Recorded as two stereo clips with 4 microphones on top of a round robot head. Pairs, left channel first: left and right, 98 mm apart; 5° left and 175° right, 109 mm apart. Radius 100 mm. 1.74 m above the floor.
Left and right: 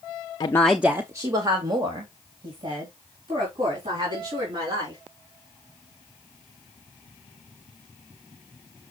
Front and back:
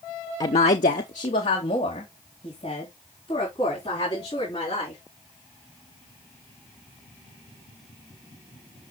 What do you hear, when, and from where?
0.4 s a woman speaking: 55° left, 0.5 m; by 5.0 s 50° right, 6 m